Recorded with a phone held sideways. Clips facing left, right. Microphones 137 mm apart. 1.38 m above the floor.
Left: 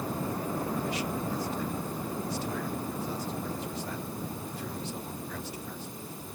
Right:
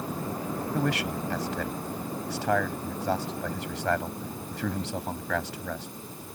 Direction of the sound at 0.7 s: 90° right.